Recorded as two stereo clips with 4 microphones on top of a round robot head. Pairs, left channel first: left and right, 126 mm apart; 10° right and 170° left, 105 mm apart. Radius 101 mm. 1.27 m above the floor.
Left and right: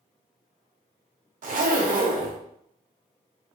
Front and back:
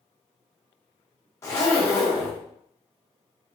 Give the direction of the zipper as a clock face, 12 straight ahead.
3 o'clock.